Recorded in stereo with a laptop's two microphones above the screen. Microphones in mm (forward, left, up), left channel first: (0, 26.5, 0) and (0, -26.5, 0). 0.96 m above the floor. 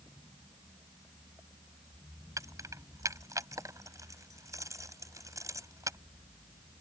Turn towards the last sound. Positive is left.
turn(degrees=-85)